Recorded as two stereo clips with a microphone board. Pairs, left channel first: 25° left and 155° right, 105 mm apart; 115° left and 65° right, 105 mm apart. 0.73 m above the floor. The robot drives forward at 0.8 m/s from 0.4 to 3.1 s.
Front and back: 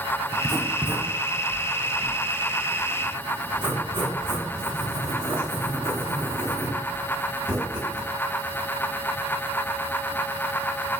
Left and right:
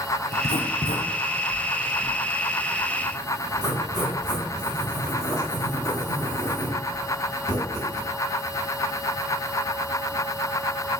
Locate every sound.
0.3 s writing: 110° left, 0.6 m; by 8.0 s 165° left, 2.5 m